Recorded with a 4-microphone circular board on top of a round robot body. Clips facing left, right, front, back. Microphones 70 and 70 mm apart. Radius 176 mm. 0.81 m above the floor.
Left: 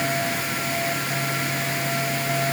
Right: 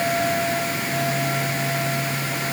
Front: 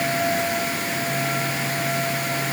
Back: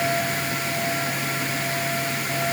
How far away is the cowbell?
I don't hear a cowbell.